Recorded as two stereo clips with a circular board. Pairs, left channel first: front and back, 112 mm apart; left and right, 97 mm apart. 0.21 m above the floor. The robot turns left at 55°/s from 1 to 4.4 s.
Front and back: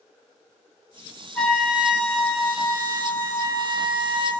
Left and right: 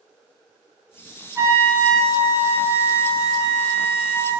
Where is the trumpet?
70° right, 1.0 m; by 4.3 s 125° left, 1.0 m.